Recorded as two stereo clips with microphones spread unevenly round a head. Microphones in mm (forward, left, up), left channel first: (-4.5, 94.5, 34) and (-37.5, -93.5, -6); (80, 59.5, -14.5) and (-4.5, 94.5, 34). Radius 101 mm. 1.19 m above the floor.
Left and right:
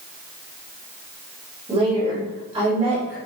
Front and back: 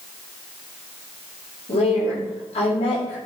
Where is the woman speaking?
30° right, 6 m.